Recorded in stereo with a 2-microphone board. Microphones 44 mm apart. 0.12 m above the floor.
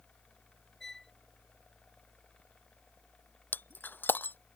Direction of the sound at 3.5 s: 50° left (ahead or behind).